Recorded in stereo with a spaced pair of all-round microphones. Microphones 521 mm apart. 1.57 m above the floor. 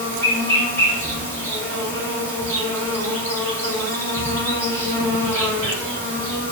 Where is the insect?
5° left (ahead or behind), 2.5 m.